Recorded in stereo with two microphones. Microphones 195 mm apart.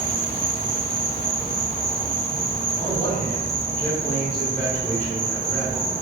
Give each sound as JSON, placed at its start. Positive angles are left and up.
{"t": 0.0, "sound": "an insect", "side_deg": -35, "distance_m": 1.2}
{"t": 2.8, "sound": "a man speaking", "side_deg": 10, "distance_m": 1.8}